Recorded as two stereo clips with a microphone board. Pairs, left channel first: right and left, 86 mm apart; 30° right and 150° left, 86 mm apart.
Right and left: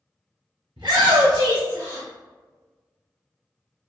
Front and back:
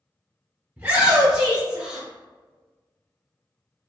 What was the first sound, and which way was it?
A shout, 90° left.